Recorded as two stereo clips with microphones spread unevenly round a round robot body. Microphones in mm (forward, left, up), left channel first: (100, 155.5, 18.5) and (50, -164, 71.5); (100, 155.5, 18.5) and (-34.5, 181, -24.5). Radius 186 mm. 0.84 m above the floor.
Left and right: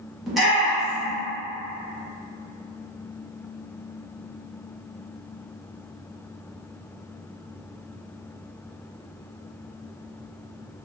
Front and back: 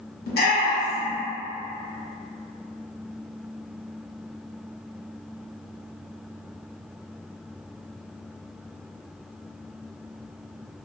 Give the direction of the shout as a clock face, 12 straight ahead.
12 o'clock.